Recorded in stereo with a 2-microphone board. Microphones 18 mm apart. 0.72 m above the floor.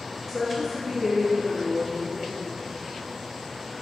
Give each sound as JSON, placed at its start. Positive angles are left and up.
{"t": 0.3, "sound": "a woman speaking", "side_deg": 5, "distance_m": 0.7}